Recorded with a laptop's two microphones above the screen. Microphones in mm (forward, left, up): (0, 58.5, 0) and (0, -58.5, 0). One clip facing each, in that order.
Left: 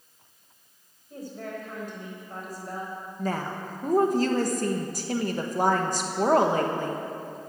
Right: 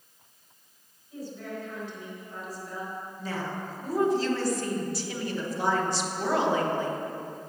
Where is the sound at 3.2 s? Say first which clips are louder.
Left 4 dB; 45° left (ahead or behind), 1.2 m.